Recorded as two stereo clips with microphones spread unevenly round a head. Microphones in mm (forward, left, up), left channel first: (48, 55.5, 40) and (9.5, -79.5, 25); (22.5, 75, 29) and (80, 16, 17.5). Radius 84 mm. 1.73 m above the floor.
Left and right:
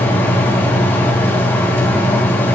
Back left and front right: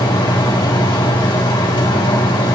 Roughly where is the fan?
Behind left.